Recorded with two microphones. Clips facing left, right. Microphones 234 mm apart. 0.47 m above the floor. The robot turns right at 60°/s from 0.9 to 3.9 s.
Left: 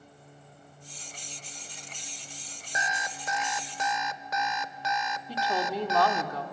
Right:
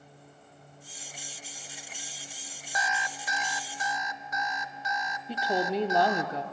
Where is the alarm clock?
25° left, 0.7 m; by 6.3 s 95° left, 0.7 m.